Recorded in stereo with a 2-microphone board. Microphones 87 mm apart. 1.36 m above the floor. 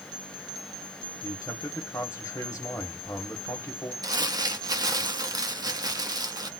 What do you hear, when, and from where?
1.2 s a man speaking: 35° left (ahead or behind), 1.5 m
4.0 s crumpling: 50° right (ahead or behind), 0.9 m